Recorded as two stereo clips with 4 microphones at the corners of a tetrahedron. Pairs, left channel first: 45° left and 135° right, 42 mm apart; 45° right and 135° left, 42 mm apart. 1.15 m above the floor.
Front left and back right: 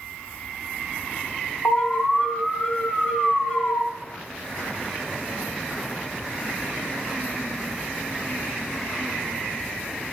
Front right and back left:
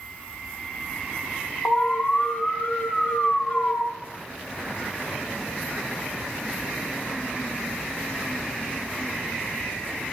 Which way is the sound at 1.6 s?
5° right.